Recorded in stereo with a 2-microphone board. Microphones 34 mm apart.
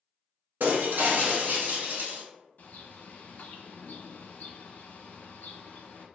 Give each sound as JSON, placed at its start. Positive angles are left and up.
{"t": 0.6, "sound": "breaking glass", "side_deg": -75, "distance_m": 0.7}
{"t": 2.6, "sound": "a bird", "side_deg": 60, "distance_m": 0.6}